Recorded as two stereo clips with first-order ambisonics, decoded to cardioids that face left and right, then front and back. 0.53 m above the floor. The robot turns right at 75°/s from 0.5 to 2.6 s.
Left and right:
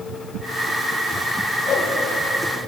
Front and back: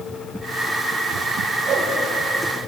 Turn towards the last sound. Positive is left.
turn(degrees=-150)